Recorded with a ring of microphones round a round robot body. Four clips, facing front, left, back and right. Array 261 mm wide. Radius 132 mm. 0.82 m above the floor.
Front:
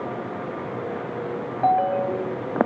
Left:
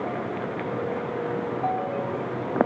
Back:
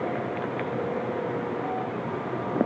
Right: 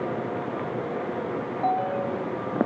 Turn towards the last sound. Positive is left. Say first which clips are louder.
# right 5 dB, front 10 dB
turn(degrees=-5)